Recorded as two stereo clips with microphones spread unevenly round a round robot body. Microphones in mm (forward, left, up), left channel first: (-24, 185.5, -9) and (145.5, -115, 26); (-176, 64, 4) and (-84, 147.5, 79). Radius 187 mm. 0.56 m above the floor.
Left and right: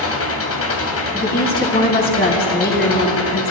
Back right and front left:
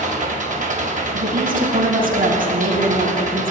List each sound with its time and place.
0.0 s an engine running: 70° left, 2.5 m
1.1 s a woman speaking: 55° left, 4 m